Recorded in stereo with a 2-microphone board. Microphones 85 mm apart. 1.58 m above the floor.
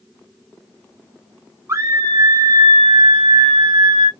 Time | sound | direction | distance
1.7 | a scream | 35° right (ahead or behind) | 1.0 m